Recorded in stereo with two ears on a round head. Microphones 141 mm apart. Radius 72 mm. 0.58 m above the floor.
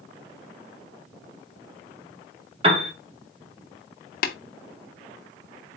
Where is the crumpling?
No crumpling in this recording.